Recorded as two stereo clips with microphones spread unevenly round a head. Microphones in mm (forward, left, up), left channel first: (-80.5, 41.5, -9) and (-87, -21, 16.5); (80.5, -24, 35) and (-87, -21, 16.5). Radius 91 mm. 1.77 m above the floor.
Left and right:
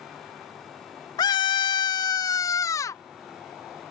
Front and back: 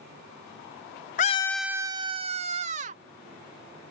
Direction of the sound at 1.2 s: 25° left.